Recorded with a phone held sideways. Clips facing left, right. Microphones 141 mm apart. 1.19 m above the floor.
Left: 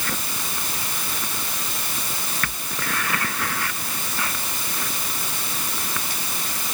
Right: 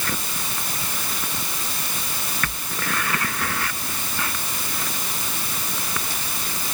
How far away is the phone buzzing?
No phone buzzing in this recording.